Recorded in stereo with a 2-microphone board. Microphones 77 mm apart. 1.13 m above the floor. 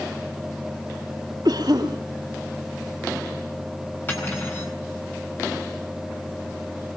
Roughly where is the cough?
Right.